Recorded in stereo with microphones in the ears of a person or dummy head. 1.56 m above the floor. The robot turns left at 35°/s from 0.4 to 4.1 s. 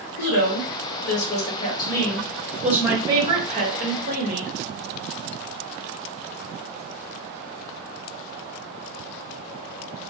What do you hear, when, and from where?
0.2 s a woman speaking: 70° left, 1.1 m; by 4.5 s 55° right, 1.1 m